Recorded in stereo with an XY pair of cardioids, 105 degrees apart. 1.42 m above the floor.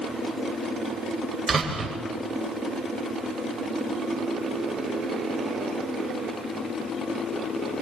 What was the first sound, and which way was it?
A door slam, 25° right.